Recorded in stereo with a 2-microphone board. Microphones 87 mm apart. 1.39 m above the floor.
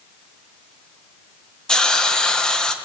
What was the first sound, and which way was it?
A hiss, 10° left (ahead or behind).